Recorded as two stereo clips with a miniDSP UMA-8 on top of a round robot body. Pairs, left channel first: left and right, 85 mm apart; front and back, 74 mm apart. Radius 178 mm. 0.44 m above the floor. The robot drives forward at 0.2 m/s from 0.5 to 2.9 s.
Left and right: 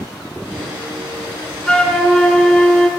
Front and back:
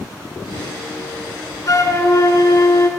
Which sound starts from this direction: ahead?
A flute, at 1.7 s.